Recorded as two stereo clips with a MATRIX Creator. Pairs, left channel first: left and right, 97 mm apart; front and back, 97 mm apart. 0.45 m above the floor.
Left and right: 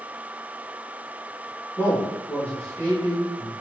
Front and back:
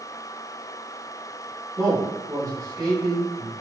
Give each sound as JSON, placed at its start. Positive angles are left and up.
{"t": 1.8, "sound": "a man speaking", "azimuth_deg": 120, "distance_m": 1.1}